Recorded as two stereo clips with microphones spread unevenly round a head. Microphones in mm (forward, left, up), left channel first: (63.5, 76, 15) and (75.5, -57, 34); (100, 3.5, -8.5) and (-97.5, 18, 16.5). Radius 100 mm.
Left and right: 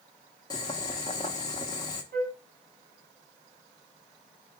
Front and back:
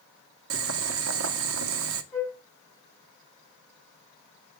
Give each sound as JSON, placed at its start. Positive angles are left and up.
{"t": 0.5, "sound": "boiling", "azimuth_deg": 170, "distance_m": 0.7}
{"t": 2.1, "sound": "a flute", "azimuth_deg": -90, "distance_m": 4.5}